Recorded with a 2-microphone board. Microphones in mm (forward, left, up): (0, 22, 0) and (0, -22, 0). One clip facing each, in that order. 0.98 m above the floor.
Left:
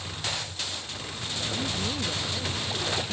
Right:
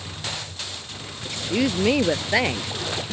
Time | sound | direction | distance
1.2 | a woman speaking | 70° right (ahead or behind) | ?